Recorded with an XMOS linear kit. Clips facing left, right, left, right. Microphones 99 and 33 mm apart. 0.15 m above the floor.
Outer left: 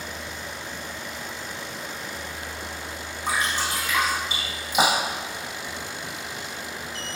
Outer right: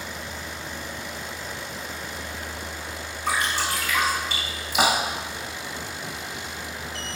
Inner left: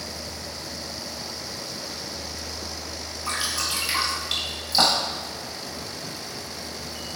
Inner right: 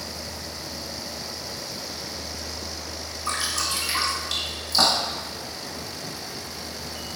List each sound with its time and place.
3.3 s dripping: 20° left (ahead or behind), 1.6 m